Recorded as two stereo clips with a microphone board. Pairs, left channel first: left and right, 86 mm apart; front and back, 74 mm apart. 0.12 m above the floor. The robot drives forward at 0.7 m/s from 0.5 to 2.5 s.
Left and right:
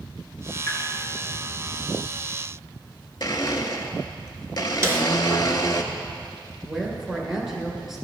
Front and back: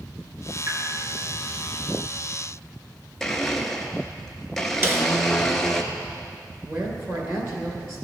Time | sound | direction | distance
0.7 | a pop | 140° left | 2 m
3.2 | a blender | 85° left | 0.6 m
4.8 | a snare drum | 135° right | 0.7 m
6.6 | a woman speaking | 175° right | 1.8 m